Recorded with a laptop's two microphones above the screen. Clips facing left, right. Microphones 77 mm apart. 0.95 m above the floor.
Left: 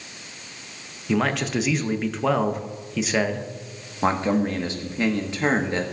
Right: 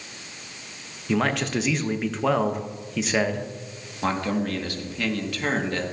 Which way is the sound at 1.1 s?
Centre (ahead or behind).